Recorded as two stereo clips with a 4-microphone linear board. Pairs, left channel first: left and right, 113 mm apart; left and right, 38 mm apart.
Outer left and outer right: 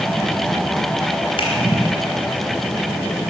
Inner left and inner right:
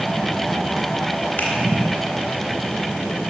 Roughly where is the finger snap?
Left.